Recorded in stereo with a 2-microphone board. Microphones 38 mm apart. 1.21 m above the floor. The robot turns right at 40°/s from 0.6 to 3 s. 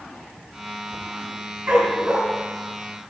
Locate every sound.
1.7 s a dog barking: 55° right (ahead or behind), 5 m; by 2.2 s 35° right (ahead or behind), 5 m